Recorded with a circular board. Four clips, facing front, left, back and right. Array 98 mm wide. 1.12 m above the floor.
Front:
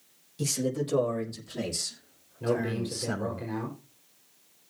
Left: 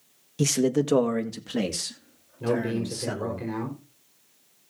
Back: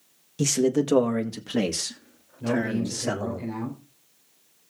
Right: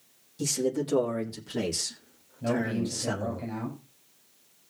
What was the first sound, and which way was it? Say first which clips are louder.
A man speaking: left 5 dB, back 8 dB; 125° left.